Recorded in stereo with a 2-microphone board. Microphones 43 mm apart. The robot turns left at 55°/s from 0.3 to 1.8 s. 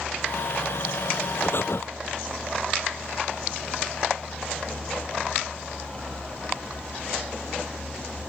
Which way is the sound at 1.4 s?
55° left (ahead or behind).